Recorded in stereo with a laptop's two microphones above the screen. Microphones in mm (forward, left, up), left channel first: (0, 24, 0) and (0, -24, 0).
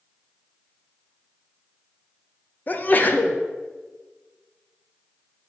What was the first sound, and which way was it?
A sneeze, 40° left (ahead or behind).